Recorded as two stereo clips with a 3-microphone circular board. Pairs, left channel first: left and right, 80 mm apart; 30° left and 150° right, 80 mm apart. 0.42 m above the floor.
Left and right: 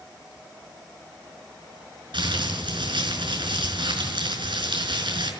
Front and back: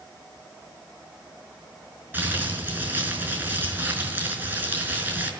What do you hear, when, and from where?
2.1 s crumpling: 85° right, 5.5 m